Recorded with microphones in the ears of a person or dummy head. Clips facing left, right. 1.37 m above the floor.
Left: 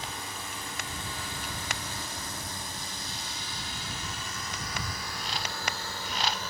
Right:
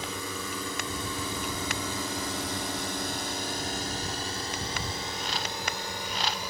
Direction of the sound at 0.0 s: 80° right.